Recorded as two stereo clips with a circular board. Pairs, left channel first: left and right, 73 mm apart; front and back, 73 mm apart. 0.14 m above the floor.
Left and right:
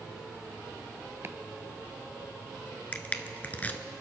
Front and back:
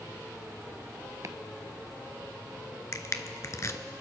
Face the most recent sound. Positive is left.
turn(degrees=25)